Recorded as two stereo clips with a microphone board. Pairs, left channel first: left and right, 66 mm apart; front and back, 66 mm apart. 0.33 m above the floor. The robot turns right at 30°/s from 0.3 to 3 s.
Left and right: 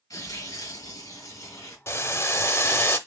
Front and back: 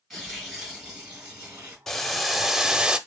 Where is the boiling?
80° left, 0.6 m; by 3.0 s 115° left, 0.6 m.